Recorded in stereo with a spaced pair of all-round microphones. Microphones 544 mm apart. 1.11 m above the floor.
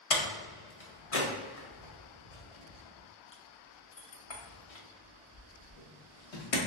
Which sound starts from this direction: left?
A door slam, at 0.1 s.